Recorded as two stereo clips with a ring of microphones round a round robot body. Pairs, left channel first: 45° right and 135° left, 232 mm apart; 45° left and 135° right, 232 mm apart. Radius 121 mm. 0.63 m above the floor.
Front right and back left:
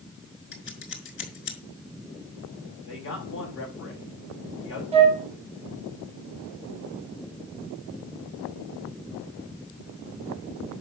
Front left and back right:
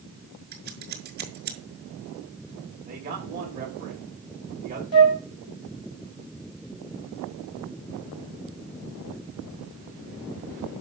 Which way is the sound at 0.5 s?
85° right.